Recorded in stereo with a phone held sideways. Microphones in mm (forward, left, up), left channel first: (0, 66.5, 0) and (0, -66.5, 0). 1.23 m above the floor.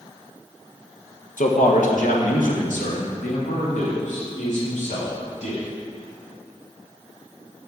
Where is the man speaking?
75° left (ahead or behind), 1.1 m; by 5.7 s 60° left (ahead or behind), 3.5 m.